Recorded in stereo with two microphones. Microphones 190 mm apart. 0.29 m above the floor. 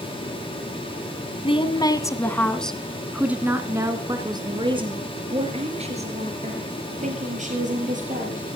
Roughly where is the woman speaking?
Left.